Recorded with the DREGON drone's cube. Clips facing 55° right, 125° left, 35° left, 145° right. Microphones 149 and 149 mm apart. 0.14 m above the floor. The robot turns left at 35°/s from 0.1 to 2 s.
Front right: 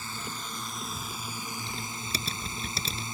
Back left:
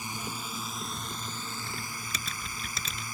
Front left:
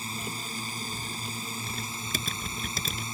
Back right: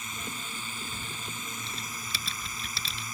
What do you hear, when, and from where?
0.0 s a drone: 60° left; by 3.1 s 5° right
1.7 s typing on a keyboard: 10° left; by 3.0 s straight ahead